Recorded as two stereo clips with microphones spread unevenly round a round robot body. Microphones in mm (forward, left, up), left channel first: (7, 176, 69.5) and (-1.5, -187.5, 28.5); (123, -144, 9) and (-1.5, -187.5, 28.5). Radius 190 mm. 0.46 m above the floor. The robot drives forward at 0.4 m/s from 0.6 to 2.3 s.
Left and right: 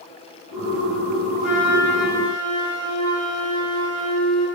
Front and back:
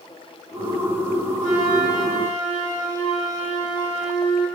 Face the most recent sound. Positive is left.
turn(degrees=180)